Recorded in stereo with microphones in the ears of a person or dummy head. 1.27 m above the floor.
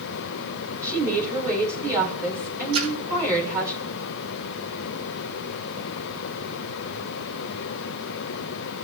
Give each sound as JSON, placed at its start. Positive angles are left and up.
{"t": 0.8, "sound": "a woman speaking", "side_deg": -15, "distance_m": 4.0}
{"t": 2.7, "sound": "a splash", "side_deg": -70, "distance_m": 5.0}